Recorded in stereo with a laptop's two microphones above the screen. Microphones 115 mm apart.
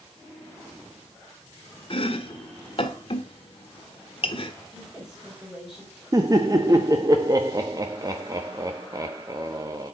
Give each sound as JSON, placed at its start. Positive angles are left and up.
{"t": 1.9, "sound": "chopping", "side_deg": 50, "distance_m": 1.4}
{"t": 4.7, "sound": "a woman speaking", "side_deg": -5, "distance_m": 5.0}
{"t": 6.1, "sound": "laughter", "side_deg": -30, "distance_m": 1.1}